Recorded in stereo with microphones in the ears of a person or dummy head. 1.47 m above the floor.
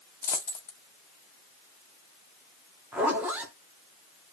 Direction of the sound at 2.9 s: 10° right (ahead or behind).